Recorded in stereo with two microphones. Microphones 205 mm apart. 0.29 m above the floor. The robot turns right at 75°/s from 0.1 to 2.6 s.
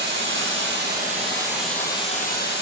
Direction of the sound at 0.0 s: 115° right.